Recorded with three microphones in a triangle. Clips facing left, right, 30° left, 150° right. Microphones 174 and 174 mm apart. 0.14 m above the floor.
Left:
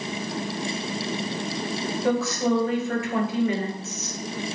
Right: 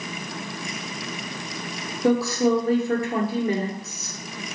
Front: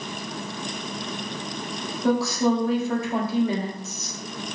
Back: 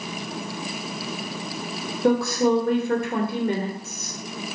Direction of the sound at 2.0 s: 135° right.